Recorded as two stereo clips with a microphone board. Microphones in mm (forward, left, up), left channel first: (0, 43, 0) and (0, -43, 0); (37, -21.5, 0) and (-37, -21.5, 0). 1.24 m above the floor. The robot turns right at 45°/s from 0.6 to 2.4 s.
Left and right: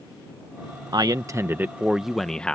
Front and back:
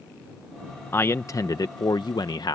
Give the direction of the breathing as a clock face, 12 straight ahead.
No breathing in this recording.